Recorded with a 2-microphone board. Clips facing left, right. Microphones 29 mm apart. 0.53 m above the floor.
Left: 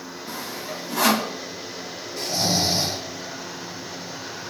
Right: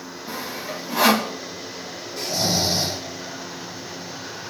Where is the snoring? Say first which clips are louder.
Even; centre (ahead or behind), 8 m.